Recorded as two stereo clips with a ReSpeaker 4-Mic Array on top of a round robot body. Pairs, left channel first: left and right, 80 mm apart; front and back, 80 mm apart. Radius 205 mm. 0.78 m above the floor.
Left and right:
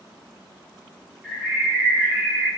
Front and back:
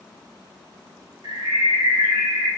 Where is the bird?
165° right, 1.3 m.